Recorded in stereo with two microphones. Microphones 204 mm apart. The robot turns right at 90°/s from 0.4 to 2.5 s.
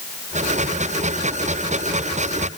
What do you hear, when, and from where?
Only background noise.